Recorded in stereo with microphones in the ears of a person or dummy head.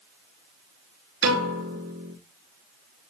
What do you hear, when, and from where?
1.2 s a piano: 80° right, 5 m